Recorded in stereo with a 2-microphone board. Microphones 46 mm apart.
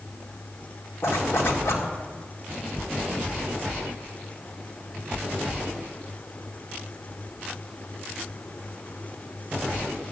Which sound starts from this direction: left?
A zipper, at 1.0 s.